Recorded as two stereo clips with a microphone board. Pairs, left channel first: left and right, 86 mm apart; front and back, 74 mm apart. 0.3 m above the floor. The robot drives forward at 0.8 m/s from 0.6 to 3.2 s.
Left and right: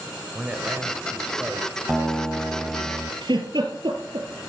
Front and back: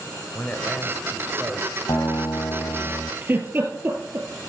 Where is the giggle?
125° right, 3 m.